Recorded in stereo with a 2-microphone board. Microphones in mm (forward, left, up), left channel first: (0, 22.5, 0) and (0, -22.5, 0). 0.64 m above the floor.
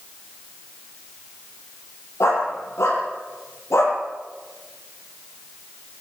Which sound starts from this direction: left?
A dog barking, at 2.2 s.